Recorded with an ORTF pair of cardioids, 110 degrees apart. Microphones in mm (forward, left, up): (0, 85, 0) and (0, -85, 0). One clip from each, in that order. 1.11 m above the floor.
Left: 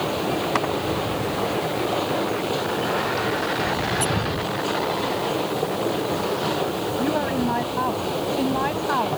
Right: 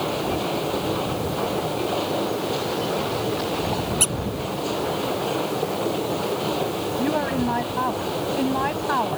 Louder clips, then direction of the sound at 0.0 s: Left 1 dB; 10° left.